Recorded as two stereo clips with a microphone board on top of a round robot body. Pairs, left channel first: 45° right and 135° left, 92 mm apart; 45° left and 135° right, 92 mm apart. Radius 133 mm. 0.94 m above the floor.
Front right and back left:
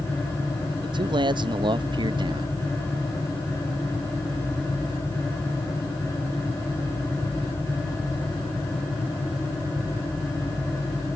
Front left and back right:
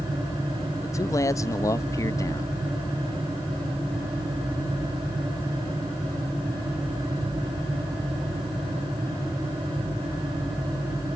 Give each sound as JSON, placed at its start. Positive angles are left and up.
{"t": 0.8, "sound": "a man speaking", "azimuth_deg": 100}